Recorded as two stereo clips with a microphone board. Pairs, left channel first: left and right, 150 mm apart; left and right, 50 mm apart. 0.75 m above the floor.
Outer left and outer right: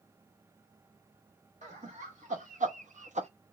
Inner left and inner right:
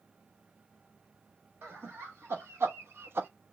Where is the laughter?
55° right (ahead or behind), 2 m; by 3.3 s 50° right (ahead or behind), 0.6 m.